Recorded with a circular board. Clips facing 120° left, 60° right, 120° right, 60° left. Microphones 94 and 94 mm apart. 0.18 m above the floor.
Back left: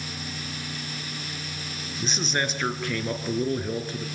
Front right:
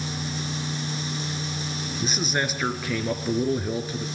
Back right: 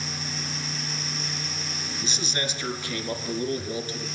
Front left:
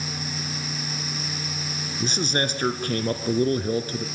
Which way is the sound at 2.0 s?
25° left.